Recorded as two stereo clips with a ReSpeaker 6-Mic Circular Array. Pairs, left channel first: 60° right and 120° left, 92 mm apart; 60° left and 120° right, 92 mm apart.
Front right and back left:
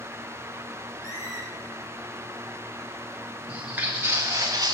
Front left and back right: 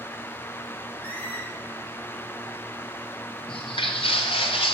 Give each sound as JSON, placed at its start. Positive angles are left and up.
{"t": 1.0, "sound": "a squeak", "azimuth_deg": -10, "distance_m": 2.5}
{"t": 3.5, "sound": "footsteps", "azimuth_deg": 40, "distance_m": 1.5}